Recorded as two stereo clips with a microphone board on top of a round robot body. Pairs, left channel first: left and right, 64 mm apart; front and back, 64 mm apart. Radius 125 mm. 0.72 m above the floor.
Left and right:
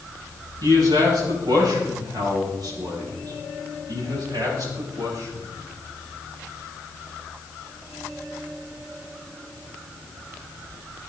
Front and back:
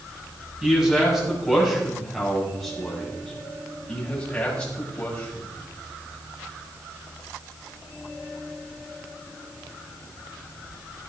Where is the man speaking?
100° right, 7 m; by 5.5 s 70° right, 7 m.